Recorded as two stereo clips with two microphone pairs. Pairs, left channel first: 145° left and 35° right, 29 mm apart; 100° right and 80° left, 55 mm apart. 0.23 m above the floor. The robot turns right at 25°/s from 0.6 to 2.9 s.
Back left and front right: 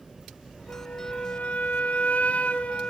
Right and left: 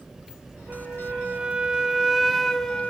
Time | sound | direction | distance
0.7 | a flute | 130° left | 1.4 m